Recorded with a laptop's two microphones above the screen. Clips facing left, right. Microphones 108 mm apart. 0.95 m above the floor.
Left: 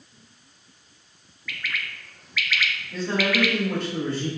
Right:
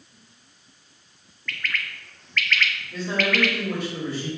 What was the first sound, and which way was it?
A bird, 5° left (ahead or behind).